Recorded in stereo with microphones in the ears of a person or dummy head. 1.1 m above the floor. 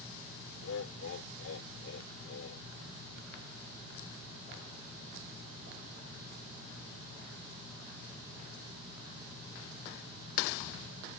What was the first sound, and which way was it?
Laughter, 65° left (ahead or behind).